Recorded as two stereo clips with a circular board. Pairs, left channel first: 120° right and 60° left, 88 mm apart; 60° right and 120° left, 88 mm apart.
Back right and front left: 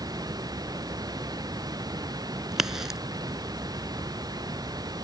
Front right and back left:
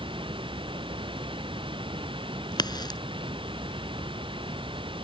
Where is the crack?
25° right.